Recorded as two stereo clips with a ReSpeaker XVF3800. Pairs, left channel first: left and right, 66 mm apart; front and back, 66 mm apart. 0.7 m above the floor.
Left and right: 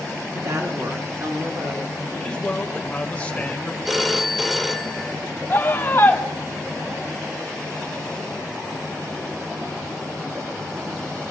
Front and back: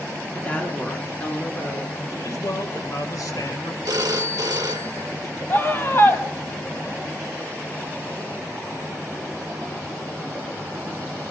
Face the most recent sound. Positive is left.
turn(degrees=45)